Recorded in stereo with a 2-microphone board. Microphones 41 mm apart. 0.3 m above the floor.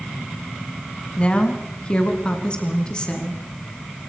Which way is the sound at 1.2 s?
25° left (ahead or behind).